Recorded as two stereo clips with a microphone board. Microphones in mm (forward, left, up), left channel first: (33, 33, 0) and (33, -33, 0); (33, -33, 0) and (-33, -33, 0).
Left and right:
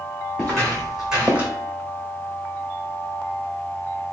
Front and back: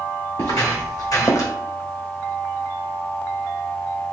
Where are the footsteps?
10° left, 1.8 m; by 1.5 s 30° right, 1.2 m.